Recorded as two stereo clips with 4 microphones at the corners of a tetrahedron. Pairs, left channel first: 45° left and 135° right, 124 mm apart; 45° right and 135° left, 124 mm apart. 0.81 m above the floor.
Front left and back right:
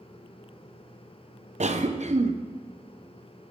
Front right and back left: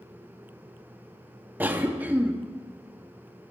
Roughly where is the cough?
Behind right.